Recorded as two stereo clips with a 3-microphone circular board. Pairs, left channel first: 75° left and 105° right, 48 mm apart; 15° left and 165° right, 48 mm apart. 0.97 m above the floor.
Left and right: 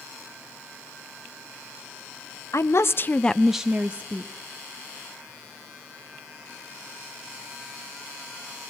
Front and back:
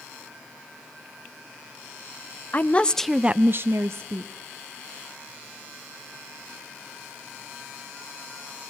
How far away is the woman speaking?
About 0.8 m.